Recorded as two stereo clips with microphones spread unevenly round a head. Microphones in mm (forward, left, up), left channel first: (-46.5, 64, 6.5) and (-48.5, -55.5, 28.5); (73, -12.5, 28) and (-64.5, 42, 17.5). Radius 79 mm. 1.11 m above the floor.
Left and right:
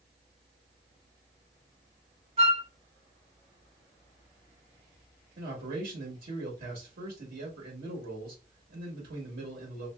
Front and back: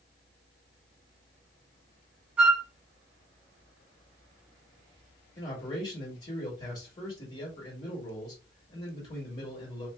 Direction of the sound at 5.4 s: 80° right.